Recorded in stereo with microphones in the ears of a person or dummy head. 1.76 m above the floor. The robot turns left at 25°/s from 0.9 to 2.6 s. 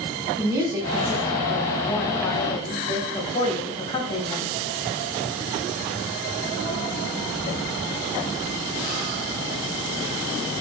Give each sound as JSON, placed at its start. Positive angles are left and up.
{"t": 0.4, "sound": "a woman speaking", "azimuth_deg": -165, "distance_m": 0.8}